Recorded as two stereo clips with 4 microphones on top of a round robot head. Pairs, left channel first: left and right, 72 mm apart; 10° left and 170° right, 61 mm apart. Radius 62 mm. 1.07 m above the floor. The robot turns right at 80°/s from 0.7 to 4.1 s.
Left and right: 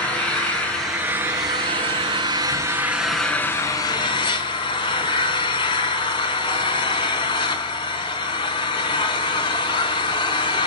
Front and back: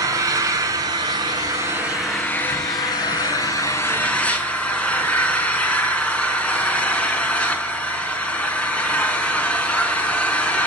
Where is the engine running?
170° left, 5 m; by 10.7 s 80° left, 5 m.